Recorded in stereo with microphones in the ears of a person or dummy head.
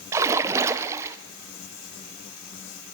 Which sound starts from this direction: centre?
A splash, at 0.1 s.